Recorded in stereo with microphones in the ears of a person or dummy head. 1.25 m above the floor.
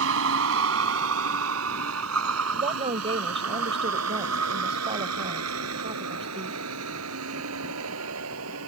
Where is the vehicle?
75° right (ahead or behind); by 8.7 s 85° right.